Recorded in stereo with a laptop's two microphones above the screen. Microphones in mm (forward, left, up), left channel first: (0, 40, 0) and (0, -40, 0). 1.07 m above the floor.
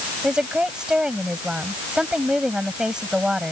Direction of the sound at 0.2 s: 10° right (ahead or behind).